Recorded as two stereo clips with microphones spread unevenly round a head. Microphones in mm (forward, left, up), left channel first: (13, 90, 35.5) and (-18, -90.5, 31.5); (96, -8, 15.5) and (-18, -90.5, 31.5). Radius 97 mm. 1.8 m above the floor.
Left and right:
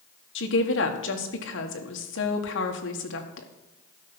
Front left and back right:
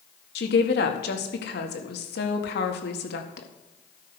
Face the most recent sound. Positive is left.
turn(degrees=55)